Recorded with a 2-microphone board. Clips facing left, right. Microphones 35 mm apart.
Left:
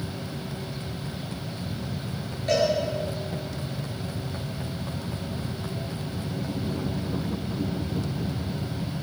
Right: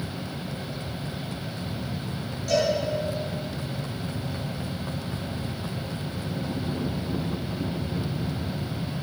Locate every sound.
2.5 s a cowbell: 40° left (ahead or behind), 7 m